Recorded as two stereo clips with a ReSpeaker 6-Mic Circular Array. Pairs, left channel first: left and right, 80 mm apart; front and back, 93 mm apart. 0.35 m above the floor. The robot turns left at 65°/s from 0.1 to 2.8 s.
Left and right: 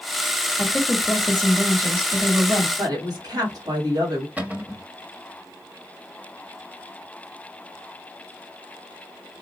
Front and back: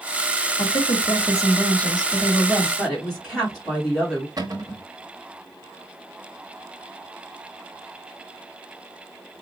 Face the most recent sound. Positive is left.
turn(degrees=-155)